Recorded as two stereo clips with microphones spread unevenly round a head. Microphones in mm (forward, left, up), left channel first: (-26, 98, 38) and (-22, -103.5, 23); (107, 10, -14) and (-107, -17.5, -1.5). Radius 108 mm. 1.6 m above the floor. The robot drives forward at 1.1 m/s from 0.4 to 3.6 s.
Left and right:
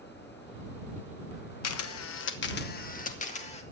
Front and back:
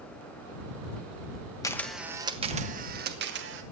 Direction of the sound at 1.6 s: 85° left.